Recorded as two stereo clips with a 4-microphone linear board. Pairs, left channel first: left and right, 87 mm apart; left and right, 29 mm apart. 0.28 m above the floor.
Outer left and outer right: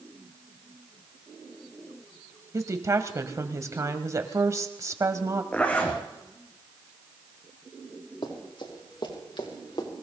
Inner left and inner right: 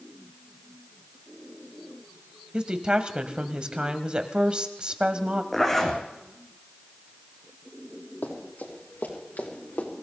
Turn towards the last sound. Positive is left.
turn(degrees=65)  # may be behind; listen again after turning